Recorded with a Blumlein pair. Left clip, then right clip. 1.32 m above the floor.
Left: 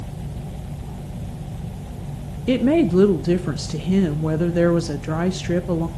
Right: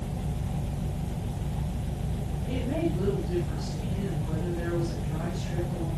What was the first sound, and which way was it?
A woman speaking, 40° left.